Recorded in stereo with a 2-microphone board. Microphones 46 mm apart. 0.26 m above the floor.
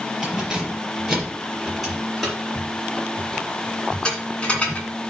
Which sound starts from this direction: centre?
Keys jangling, at 0.2 s.